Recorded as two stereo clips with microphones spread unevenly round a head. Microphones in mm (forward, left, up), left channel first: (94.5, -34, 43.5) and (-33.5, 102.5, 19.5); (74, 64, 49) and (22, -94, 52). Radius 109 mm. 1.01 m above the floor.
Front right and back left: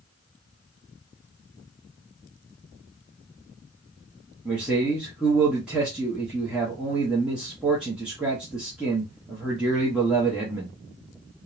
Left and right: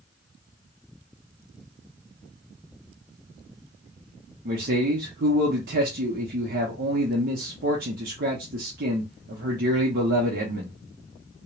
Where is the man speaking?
145° right, 0.7 m.